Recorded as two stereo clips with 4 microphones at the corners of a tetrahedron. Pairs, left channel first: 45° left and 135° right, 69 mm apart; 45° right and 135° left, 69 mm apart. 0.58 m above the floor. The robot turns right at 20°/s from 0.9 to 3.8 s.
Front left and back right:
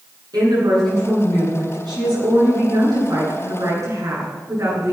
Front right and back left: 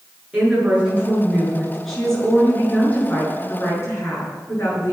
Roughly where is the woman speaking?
Behind right.